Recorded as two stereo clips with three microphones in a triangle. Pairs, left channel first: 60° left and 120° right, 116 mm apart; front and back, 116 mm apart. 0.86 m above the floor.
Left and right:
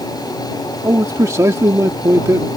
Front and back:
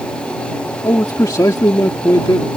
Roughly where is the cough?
No cough in this recording.